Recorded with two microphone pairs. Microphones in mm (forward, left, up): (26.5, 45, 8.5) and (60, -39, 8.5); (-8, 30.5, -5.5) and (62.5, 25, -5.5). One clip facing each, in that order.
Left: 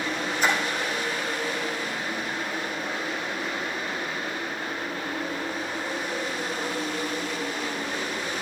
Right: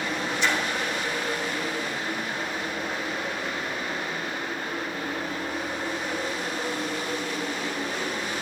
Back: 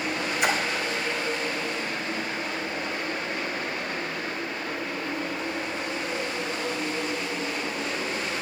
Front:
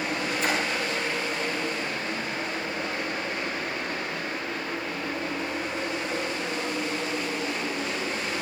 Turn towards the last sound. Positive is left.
turn(degrees=155)